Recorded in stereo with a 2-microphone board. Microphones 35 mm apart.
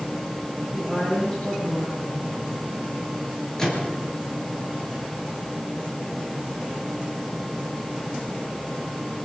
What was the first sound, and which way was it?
A woman speaking, 10° left (ahead or behind).